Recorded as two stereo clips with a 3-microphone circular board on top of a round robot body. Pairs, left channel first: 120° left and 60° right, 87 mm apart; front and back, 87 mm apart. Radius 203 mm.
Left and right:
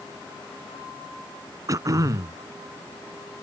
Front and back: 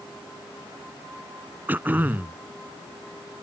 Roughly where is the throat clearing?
Right.